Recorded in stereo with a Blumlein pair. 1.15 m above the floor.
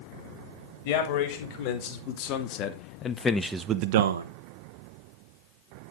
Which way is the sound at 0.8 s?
50° left.